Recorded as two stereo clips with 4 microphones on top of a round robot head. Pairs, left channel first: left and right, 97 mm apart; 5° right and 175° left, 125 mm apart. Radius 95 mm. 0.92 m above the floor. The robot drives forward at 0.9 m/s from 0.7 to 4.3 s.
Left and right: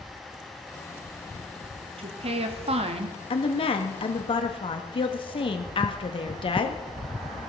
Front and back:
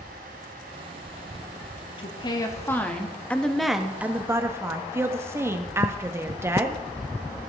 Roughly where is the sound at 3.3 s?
Left.